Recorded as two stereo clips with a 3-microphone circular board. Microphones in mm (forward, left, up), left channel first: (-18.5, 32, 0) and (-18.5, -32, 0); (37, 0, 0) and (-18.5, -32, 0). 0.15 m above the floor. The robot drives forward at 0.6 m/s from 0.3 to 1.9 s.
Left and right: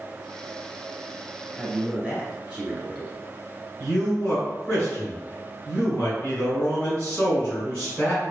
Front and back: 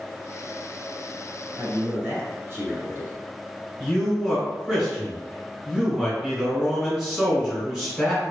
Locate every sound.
1.6 s a man speaking: 145° right, 1.8 m; by 3.2 s 150° right, 1.9 m
3.8 s a man speaking: 125° left, 1.6 m